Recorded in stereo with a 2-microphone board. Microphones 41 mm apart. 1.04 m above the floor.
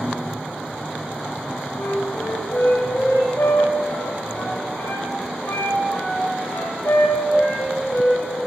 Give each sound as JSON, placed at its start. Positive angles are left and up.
{"t": 1.8, "sound": "a flute", "side_deg": 80, "distance_m": 5.5}